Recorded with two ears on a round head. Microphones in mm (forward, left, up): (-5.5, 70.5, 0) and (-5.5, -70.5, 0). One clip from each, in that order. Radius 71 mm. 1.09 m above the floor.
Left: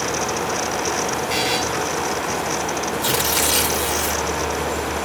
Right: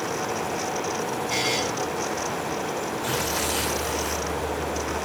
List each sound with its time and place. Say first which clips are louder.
1.3 s a buzzer: left 3 dB; 15° left (ahead or behind), 6 m
3.0 s tearing paper: left 7 dB; 65° left (ahead or behind), 4 m